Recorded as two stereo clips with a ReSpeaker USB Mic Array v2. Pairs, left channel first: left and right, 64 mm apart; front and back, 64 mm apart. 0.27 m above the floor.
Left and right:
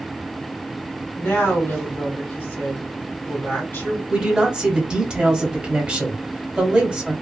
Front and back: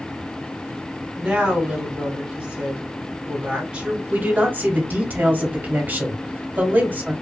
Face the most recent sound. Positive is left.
turn(degrees=-150)